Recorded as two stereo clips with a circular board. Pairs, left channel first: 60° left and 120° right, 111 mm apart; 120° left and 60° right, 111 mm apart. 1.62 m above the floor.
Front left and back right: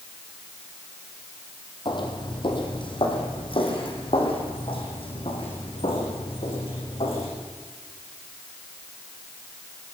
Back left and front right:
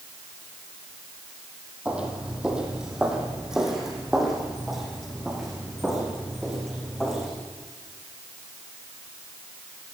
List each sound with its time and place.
1.9 s footsteps: 20° left, 4 m; by 7.3 s 35° left, 7.5 m